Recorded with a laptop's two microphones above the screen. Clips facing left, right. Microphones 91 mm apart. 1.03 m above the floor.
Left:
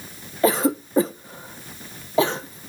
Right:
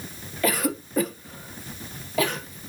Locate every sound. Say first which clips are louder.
0.4 s a cough: left 6 dB; 30° left (ahead or behind), 0.8 m